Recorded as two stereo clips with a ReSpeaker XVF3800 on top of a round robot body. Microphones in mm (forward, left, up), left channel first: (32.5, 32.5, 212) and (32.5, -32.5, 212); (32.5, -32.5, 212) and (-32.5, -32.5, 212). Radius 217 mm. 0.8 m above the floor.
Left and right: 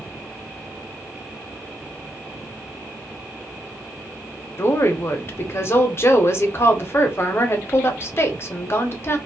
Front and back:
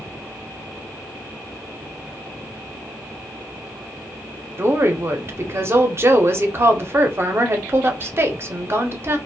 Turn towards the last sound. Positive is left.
turn(degrees=135)